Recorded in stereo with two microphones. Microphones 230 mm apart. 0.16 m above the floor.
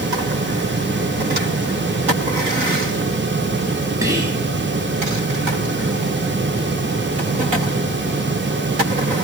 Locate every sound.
4.0 s whispering: 15° right (ahead or behind), 2.0 m